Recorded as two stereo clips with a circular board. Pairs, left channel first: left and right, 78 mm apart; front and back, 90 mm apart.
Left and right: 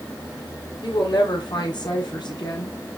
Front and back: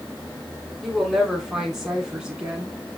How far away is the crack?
I don't hear a crack.